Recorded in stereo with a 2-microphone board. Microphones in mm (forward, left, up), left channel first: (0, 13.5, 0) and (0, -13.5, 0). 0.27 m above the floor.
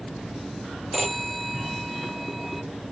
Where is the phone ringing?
Centre (ahead or behind).